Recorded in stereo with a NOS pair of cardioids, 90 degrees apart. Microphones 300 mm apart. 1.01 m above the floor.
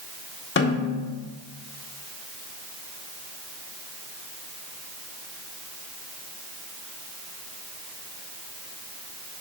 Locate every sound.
0.6 s a snare drum: 35° left, 1.6 m